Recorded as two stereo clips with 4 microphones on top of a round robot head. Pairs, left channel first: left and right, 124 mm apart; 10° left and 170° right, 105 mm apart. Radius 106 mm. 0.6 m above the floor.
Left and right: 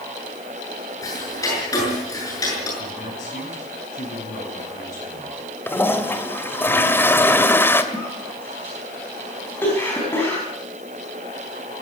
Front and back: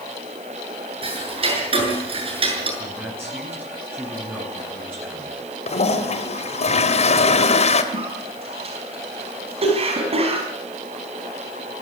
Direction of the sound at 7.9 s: 165° left.